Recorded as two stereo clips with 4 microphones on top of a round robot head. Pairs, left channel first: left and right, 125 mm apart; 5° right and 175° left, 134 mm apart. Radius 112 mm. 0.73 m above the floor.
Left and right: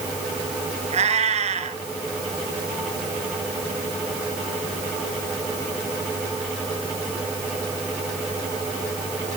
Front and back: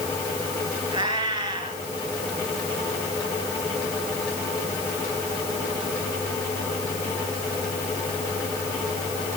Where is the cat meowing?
120° right, 3 m.